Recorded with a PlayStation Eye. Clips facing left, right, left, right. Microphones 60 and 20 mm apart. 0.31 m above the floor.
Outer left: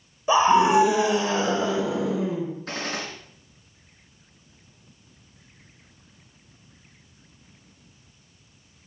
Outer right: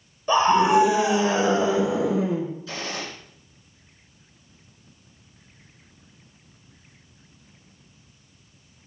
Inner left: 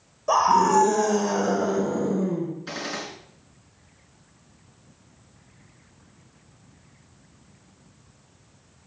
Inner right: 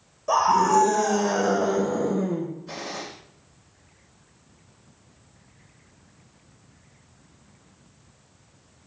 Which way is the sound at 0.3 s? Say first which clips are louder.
Even, inner left 1 dB; 10° left (ahead or behind).